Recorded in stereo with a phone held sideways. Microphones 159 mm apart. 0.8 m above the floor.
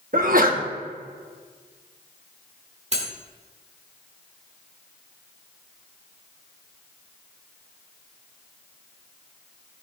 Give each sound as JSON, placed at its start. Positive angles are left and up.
{"t": 0.1, "sound": "a sneeze", "side_deg": -60, "distance_m": 1.1}
{"t": 2.9, "sound": "cutlery clinking", "side_deg": -45, "distance_m": 1.5}